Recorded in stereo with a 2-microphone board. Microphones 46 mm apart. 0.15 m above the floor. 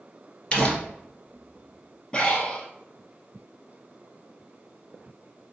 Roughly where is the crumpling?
Left.